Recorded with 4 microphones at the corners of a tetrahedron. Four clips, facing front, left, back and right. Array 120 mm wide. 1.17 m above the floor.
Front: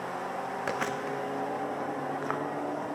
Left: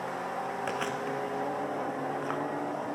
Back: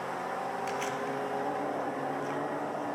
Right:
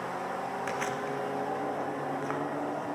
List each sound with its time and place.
0.7 s chewing: 10° left, 0.7 m